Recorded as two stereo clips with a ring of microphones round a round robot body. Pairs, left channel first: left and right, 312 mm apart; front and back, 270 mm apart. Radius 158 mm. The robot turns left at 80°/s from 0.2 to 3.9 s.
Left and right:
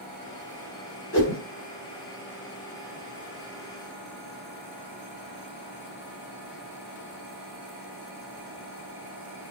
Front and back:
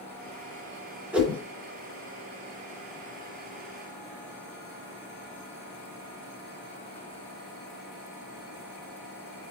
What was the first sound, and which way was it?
A whoosh, 100° left.